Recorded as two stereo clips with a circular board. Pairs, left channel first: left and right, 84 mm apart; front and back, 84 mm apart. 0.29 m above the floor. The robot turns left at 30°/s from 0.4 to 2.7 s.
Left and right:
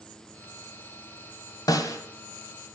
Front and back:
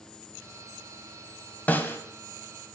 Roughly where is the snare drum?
Ahead left.